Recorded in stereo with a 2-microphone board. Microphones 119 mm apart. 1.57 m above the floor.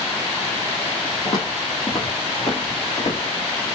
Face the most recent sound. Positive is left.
turn(degrees=55)  # may be behind; listen again after turning